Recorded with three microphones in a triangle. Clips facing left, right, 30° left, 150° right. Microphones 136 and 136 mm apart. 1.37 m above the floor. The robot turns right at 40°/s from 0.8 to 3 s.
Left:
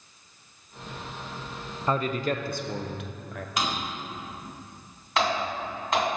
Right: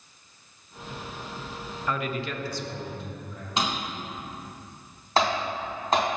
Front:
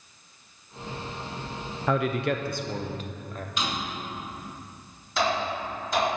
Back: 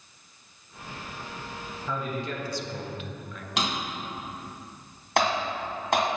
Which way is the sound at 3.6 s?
155° right.